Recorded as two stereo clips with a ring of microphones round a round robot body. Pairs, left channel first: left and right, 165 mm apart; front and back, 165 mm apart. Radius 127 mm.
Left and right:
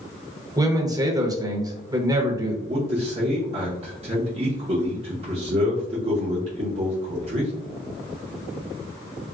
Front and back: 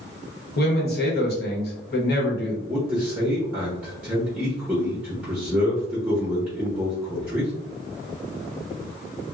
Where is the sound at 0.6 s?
20° right, 1.1 m.